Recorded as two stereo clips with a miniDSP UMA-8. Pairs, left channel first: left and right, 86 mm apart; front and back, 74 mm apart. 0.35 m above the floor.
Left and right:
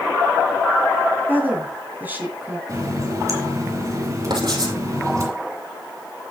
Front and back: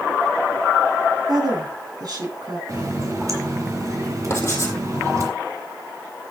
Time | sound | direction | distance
1.3 | a woman speaking | 155° right | 3 m
2.7 | a running tap | 140° right | 2 m
4.3 | writing | 55° right | 2.5 m